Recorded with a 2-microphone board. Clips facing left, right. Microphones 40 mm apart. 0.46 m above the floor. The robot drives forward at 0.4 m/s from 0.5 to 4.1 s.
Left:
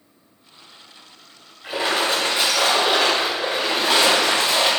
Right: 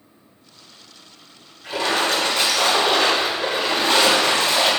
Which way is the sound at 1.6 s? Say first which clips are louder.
Even; 20° left (ahead or behind).